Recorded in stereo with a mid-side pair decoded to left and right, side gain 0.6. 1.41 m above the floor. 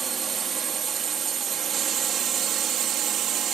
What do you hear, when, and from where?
0.0 s a drone: 30° right; by 3.5 s 50° right